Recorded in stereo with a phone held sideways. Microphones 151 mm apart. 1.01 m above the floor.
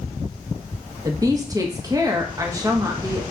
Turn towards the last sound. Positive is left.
turn(degrees=-25)  # may be behind; listen again after turning